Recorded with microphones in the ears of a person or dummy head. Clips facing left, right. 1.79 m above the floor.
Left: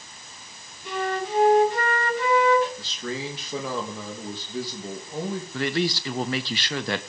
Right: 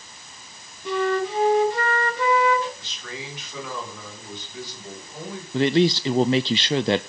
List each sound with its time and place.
0.8 s a flute: 70° right (ahead or behind), 4 m
2.8 s a man speaking: 30° left (ahead or behind), 3 m
5.5 s a man speaking: 20° right (ahead or behind), 0.5 m